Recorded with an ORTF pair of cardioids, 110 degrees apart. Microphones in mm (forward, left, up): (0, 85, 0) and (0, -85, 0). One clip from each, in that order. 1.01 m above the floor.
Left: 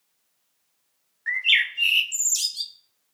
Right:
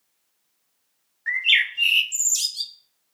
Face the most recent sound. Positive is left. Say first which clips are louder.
# right 1 dB
turn(degrees=-5)